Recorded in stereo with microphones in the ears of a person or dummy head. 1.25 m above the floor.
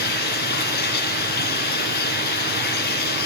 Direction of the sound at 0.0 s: 50° left (ahead or behind).